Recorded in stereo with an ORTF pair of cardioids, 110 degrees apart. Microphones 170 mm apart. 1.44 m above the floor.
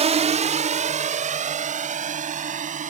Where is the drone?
40° right; by 2.9 s 45° right.